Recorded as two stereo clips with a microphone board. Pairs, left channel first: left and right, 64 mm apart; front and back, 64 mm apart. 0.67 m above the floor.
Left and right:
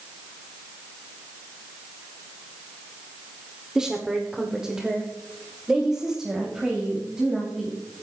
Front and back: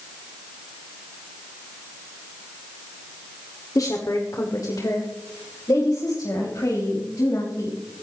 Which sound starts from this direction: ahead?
A woman speaking, at 3.8 s.